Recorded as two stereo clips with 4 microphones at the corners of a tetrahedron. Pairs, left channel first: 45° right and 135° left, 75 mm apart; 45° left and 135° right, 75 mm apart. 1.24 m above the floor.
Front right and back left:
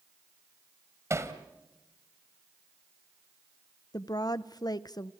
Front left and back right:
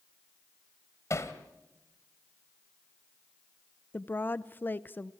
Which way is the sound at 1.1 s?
90° left.